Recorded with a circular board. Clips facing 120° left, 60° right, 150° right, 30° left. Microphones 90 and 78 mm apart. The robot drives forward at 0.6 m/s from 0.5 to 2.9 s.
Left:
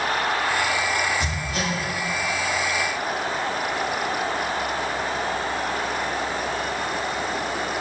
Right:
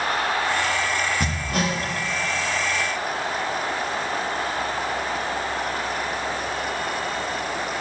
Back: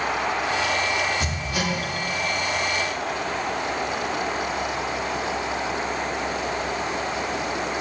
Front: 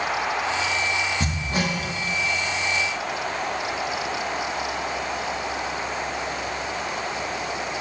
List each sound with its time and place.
1.2 s hammering: 25° right, 2.5 m